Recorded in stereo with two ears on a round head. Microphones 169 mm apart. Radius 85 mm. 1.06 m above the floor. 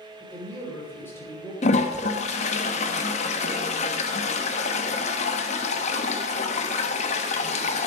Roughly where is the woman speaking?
Centre.